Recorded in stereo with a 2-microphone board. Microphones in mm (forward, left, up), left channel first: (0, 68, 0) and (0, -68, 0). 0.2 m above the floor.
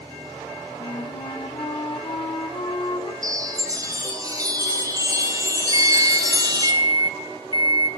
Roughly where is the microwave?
Right.